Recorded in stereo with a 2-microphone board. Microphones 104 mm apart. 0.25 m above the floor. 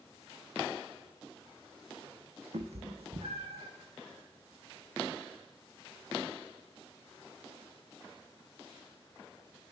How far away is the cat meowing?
About 1.1 m.